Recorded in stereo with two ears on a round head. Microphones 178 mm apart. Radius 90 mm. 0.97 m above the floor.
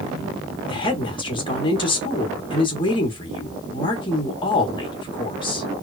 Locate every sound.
0.7 s a woman speaking: 25° left (ahead or behind), 1.0 m